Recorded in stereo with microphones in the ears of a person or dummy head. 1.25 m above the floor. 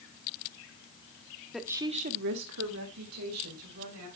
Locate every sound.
1.5 s a woman speaking: 5° left (ahead or behind), 1.1 m; by 4.1 s 80° right, 3.5 m